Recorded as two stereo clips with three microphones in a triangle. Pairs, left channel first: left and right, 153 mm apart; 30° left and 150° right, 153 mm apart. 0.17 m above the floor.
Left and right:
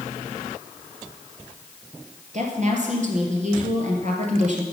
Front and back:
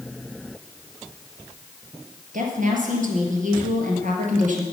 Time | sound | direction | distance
2.3 | a woman speaking | 125° right | 3 m